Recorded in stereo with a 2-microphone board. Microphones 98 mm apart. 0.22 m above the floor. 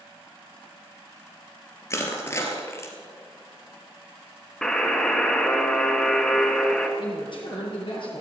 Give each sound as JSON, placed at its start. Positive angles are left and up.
{"t": 1.9, "sound": "crushing", "side_deg": 30, "distance_m": 3.0}
{"t": 4.6, "sound": "a buzzer", "side_deg": 5, "distance_m": 2.0}
{"t": 7.0, "sound": "a man speaking", "side_deg": 60, "distance_m": 5.5}